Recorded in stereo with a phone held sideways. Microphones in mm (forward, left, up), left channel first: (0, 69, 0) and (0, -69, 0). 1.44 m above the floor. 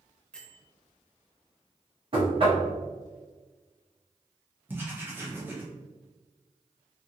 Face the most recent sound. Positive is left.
turn(degrees=-15)  # may be behind; listen again after turning